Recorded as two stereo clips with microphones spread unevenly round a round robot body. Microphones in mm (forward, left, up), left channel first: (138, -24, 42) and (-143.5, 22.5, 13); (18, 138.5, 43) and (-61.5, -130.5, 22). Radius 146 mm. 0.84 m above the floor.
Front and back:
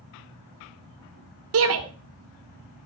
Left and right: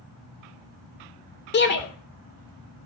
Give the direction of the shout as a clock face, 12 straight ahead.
8 o'clock.